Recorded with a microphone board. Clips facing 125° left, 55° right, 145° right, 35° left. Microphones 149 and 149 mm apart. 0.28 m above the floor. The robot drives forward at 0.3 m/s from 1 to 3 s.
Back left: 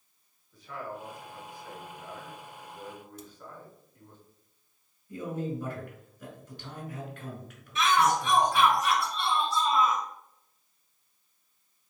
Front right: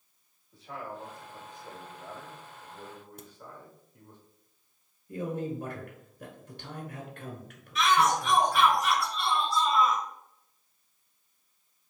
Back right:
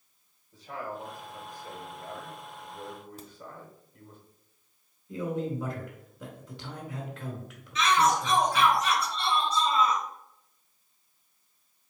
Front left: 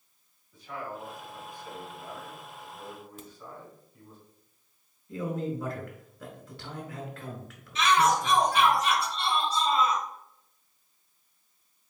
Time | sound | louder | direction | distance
0.5 | a man speaking | back left 1 dB, back right 1 dB | 105° right | 1.4 m
3.2 | a crack | back left 2 dB, even | 90° right | 0.6 m
5.1 | a man speaking | front right 1 dB, back right 1 dB | 80° right | 1.5 m
7.8 | a shout | even, front left 1 dB | 70° left | 1.8 m